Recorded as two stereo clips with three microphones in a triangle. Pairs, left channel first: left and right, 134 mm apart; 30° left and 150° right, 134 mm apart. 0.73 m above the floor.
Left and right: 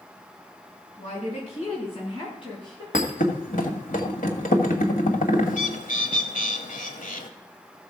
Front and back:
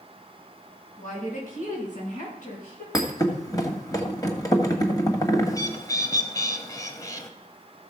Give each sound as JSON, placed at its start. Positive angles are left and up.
{"t": 1.0, "sound": "a woman speaking", "azimuth_deg": 55, "distance_m": 5.0}
{"t": 2.9, "sound": "a thud", "azimuth_deg": 90, "distance_m": 1.7}
{"t": 5.5, "sound": "a bird", "azimuth_deg": 90, "distance_m": 1.1}